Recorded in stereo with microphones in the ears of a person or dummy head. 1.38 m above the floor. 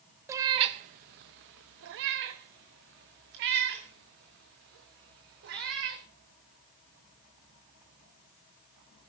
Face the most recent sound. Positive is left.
turn(degrees=-55)  # may be behind; listen again after turning